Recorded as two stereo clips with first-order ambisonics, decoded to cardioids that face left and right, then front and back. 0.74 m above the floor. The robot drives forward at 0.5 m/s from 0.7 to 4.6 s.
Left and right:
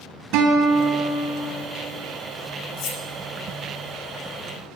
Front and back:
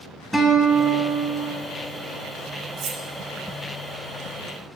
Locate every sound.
0.3 s a guitar: 85° right, 1.1 m; by 1.5 s 105° right, 1.2 m
2.8 s cutlery clinking: 125° left, 0.6 m; by 3.0 s 135° left, 0.7 m